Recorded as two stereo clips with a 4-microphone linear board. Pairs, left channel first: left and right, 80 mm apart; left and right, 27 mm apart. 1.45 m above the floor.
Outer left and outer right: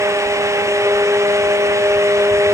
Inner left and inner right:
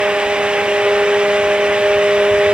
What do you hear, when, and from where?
Only background noise.